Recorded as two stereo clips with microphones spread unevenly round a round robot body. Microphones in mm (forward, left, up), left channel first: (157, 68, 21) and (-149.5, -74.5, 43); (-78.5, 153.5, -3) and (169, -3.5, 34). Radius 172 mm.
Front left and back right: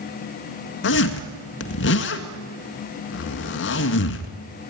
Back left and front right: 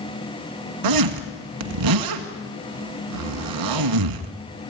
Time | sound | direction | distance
0.8 | a zipper | 35° right | 1.7 m